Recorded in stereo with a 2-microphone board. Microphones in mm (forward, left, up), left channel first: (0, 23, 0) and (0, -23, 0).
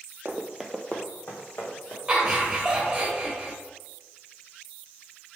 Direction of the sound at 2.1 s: 15° right (ahead or behind).